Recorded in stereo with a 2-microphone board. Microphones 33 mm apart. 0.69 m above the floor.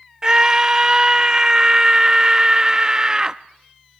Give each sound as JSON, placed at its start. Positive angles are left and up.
{"t": 0.2, "sound": "a scream", "side_deg": -20, "distance_m": 0.5}